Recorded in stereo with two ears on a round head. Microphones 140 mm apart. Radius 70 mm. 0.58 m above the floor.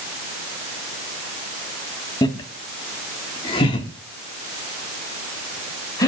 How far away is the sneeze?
No sneeze in this recording.